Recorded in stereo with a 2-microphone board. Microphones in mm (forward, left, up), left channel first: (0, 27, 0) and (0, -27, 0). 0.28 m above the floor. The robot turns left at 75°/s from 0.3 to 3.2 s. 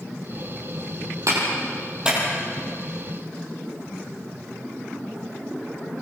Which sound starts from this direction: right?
A clap, at 1.3 s.